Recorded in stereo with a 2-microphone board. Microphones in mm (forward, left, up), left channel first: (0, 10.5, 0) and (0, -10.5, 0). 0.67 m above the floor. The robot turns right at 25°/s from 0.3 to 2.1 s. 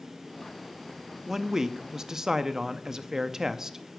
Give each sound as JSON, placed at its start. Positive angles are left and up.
{"t": 1.3, "sound": "a man speaking", "side_deg": -20, "distance_m": 0.6}